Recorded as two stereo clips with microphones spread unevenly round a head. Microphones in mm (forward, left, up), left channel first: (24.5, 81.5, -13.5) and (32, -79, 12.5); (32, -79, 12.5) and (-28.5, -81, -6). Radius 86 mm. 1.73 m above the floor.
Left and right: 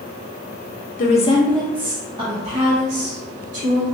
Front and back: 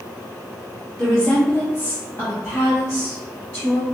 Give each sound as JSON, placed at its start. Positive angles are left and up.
{"t": 1.0, "sound": "a woman speaking", "azimuth_deg": 65, "distance_m": 0.8}